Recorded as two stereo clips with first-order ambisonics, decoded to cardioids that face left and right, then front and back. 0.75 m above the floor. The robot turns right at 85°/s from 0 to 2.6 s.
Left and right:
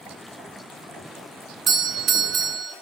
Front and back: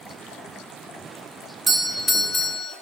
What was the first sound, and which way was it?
A doorbell, 120° right.